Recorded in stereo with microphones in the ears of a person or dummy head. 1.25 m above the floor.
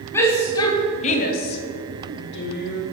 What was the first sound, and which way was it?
A shout, 15° left (ahead or behind).